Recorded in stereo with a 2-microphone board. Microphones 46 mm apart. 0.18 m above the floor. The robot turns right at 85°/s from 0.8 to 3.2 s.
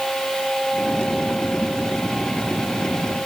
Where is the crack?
No crack in this recording.